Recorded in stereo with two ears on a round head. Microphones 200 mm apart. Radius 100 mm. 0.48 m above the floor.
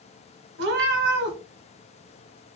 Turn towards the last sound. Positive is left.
turn(degrees=-50)  # may be behind; listen again after turning